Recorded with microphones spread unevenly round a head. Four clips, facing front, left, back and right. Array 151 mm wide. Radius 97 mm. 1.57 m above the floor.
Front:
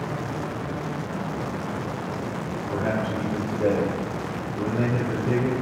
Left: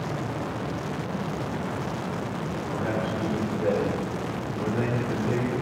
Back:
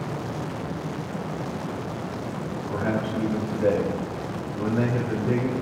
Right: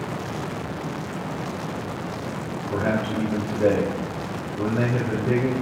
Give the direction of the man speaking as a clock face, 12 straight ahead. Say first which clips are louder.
Right 5 dB, even; 3 o'clock.